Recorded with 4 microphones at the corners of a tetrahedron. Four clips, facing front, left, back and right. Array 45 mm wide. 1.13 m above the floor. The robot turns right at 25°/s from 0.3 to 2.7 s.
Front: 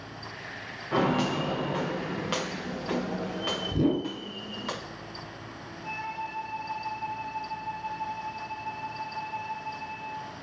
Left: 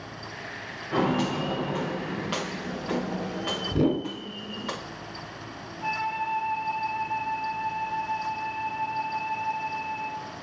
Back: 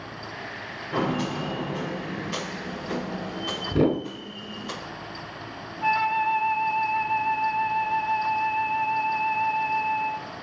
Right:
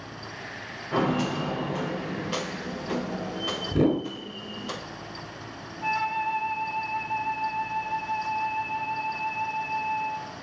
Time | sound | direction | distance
0.9 | footsteps | 10° right | 5 m
3.7 | a whoosh | 170° right | 1.6 m
5.8 | a flute | 165° right | 1.5 m